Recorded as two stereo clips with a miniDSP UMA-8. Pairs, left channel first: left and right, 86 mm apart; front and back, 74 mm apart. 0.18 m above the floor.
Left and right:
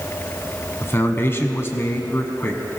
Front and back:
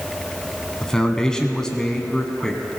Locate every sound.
0.8 s a man speaking: 70° left, 1.1 m